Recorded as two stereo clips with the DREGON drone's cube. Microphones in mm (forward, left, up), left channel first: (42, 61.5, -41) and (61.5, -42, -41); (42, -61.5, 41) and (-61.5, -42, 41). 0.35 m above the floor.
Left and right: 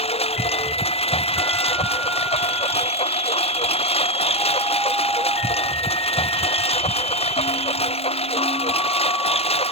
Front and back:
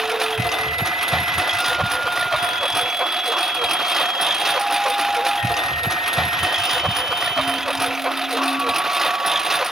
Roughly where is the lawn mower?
Left.